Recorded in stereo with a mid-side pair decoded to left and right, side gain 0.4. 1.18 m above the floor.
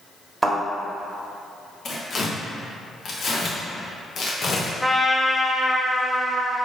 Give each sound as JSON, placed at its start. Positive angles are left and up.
{"t": 0.4, "sound": "a thud", "azimuth_deg": -20, "distance_m": 1.3}
{"t": 1.9, "sound": "tearing paper", "azimuth_deg": 55, "distance_m": 1.0}
{"t": 4.8, "sound": "a trumpet", "azimuth_deg": 5, "distance_m": 0.6}